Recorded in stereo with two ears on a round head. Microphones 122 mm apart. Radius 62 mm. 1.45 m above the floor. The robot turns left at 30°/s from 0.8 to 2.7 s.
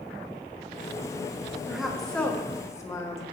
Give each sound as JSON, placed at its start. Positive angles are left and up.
{"t": 1.7, "sound": "a woman speaking", "azimuth_deg": -175, "distance_m": 1.1}